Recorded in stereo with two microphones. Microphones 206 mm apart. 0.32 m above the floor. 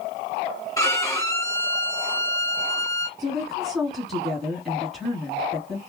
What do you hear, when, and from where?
0.8 s a violin: 15° left (ahead or behind), 2.0 m
3.2 s a woman speaking: centre (ahead or behind), 3 m